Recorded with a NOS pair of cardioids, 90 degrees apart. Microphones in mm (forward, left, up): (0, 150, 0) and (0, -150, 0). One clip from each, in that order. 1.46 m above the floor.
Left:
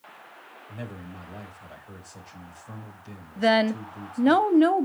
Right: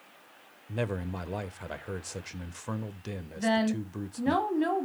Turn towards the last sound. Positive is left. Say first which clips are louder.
# left 7 dB
turn(degrees=50)